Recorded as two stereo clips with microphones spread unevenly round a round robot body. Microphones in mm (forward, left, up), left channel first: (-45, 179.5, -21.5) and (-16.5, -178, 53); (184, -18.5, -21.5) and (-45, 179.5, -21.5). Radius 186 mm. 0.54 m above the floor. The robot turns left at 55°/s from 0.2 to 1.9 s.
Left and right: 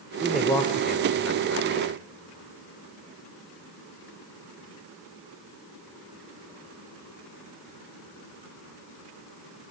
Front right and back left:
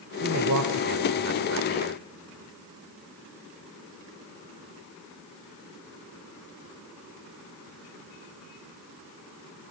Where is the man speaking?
175° right, 1.9 m; by 2.0 s 95° left, 1.9 m.